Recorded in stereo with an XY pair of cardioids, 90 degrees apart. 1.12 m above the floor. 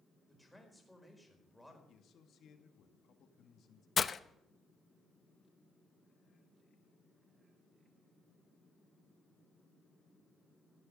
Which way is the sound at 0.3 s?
Straight ahead.